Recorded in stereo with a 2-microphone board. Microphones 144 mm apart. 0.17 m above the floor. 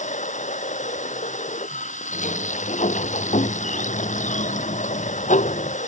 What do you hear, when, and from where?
0.0 s running water: 60° left (ahead or behind)
2.1 s a sliding door: 60° left (ahead or behind)